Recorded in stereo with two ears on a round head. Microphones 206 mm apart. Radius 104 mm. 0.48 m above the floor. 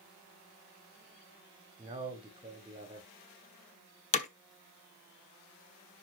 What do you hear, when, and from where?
1.8 s a man speaking: 20° right (ahead or behind), 1.6 m
4.1 s hammering: 30° left (ahead or behind), 1.0 m